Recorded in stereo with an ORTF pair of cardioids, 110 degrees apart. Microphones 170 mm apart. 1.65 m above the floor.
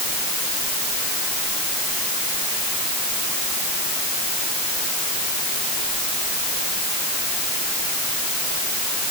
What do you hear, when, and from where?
Only background noise.